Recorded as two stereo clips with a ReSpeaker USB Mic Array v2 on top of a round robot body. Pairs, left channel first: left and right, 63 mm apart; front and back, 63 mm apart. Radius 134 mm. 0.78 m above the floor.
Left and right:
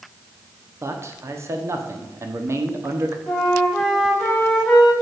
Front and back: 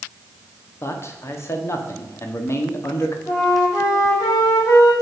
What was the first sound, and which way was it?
A man speaking, 45° right.